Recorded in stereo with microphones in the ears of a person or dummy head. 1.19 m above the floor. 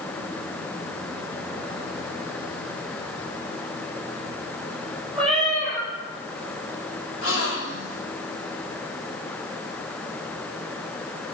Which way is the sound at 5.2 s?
Centre (ahead or behind).